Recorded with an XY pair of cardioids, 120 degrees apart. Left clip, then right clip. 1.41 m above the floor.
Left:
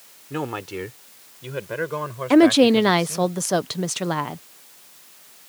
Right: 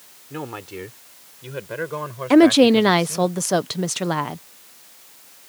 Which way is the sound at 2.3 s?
Straight ahead.